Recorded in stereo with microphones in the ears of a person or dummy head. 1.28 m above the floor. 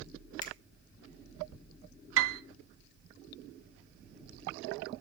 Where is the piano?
60° right (ahead or behind), 0.7 m.